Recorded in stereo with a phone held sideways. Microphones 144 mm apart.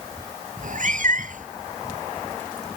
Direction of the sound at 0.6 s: 65° right (ahead or behind).